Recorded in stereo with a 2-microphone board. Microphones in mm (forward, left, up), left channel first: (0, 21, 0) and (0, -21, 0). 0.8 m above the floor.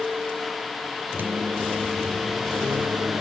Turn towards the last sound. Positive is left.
turn(degrees=-50)  # may be behind; listen again after turning